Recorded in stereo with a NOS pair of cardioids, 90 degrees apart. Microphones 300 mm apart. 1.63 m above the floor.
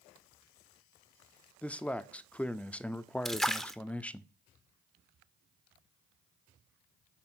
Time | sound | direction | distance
1.6 | a man speaking | 5° left | 0.5 m
3.2 | a splash | straight ahead | 0.7 m